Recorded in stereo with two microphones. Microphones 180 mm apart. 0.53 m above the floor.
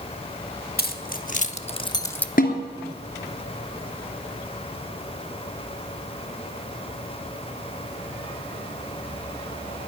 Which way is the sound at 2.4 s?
50° left (ahead or behind).